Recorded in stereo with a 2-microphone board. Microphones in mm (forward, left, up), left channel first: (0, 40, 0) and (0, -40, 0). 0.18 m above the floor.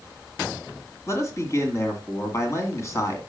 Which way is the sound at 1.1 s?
35° left (ahead or behind).